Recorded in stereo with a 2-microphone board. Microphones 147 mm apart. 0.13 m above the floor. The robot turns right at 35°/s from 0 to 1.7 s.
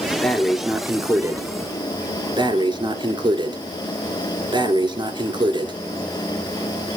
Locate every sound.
0.2 s breathing: 170° left, 1.4 m; by 5.8 s 135° right, 1.4 m